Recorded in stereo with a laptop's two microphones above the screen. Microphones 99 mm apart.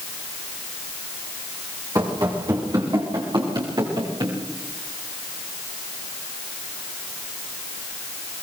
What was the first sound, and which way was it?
Running footsteps, 35° right (ahead or behind).